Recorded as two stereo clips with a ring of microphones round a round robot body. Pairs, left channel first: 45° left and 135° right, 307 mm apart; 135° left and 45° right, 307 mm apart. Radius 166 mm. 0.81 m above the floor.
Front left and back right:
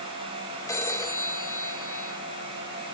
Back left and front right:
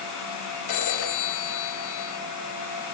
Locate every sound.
0.7 s a phone ringing: 125° left, 1.6 m